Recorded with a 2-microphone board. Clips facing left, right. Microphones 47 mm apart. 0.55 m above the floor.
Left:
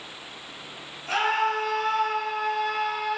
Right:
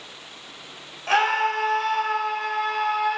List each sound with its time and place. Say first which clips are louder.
1.1 s a scream: right 3 dB; 70° right (ahead or behind), 2.5 m; by 3.2 s 50° right (ahead or behind), 2.5 m